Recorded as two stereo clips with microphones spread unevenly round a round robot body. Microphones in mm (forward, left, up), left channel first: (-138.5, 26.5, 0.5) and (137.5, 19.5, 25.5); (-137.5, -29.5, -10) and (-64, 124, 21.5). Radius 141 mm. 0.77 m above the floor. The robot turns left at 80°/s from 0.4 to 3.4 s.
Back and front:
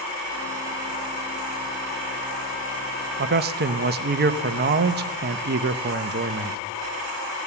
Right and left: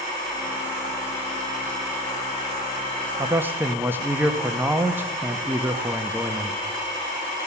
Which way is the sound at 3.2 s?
5° right.